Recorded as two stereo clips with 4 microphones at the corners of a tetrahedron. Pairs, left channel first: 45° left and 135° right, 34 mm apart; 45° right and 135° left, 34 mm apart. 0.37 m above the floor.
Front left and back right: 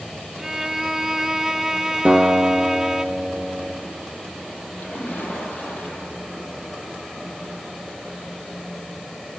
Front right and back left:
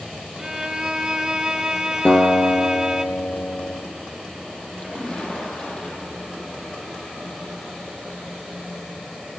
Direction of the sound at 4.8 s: 5° left.